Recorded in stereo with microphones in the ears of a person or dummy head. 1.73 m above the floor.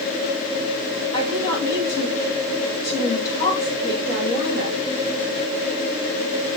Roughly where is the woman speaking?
Left.